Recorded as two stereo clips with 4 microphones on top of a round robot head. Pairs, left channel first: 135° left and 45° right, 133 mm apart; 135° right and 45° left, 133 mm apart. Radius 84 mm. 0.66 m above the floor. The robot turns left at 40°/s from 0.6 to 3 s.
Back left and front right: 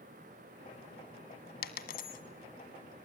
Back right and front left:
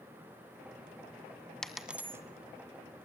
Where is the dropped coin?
135° left, 1.8 m; by 2.2 s 115° left, 1.8 m.